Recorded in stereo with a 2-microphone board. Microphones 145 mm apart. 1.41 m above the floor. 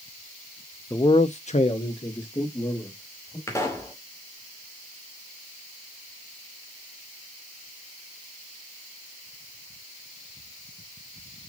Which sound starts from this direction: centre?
A man speaking, at 0.9 s.